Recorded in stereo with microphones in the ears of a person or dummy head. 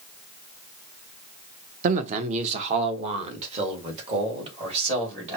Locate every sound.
1.8 s a man speaking: 40° right (ahead or behind), 0.6 m; by 5.4 s 35° right (ahead or behind), 2.5 m